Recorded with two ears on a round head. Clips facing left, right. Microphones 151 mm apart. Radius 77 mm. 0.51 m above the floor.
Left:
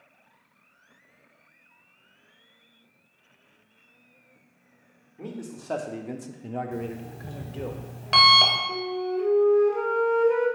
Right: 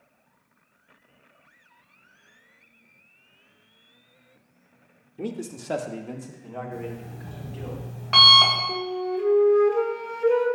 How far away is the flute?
About 1.8 m.